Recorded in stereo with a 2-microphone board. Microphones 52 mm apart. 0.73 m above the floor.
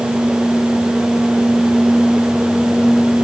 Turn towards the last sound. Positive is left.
No sound to turn to.